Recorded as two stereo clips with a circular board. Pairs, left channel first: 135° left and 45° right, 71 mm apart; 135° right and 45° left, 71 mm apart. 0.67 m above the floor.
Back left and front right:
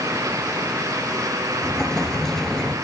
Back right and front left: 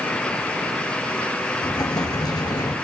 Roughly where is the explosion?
Behind right.